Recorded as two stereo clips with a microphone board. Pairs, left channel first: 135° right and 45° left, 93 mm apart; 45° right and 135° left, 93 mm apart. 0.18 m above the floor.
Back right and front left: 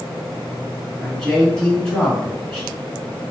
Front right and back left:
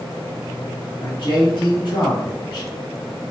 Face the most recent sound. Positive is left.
turn(degrees=-55)